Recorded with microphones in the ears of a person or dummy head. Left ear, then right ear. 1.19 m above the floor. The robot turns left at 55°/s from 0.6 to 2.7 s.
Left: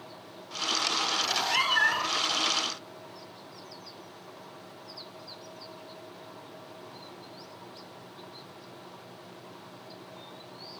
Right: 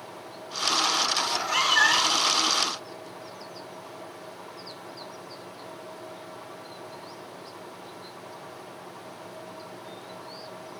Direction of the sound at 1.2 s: 20° left.